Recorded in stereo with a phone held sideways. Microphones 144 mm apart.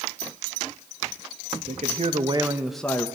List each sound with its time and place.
1.6 s a man speaking: 65° right (ahead or behind), 1.4 m; by 3.1 s 25° left (ahead or behind), 1.0 m